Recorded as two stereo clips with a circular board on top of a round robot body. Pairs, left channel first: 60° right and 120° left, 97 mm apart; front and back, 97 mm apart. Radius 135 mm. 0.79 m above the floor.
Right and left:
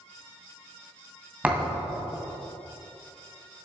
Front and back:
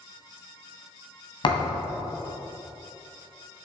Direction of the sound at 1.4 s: 45° left.